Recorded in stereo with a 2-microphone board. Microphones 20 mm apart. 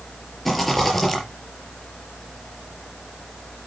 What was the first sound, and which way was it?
A rattle, 5° left (ahead or behind).